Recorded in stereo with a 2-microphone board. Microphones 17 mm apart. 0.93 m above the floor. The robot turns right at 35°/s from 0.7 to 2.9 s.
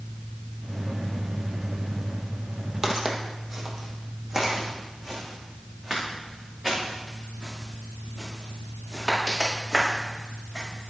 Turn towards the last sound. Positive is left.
turn(degrees=-20)  # may be behind; listen again after turning